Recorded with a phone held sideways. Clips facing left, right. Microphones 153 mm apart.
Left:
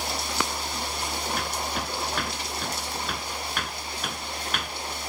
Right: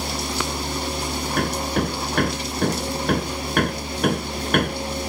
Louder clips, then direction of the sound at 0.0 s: Right 4 dB; 60° right (ahead or behind).